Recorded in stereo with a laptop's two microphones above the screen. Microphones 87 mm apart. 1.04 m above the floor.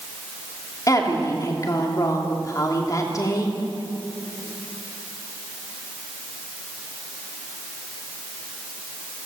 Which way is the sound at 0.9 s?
40° left (ahead or behind).